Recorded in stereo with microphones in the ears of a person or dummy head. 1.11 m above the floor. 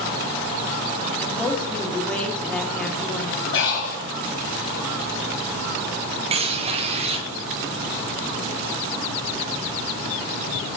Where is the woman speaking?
10° left (ahead or behind), 1.3 m.